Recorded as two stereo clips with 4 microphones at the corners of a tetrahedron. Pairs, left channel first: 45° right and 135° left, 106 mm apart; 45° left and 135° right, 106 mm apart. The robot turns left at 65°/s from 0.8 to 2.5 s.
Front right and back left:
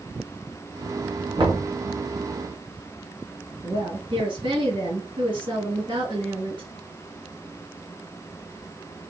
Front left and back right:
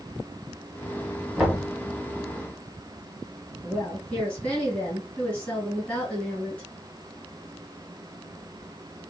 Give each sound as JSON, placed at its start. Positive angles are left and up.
{"t": 1.4, "sound": "knocking", "azimuth_deg": 140, "distance_m": 1.7}
{"t": 3.6, "sound": "a woman speaking", "azimuth_deg": 120, "distance_m": 2.5}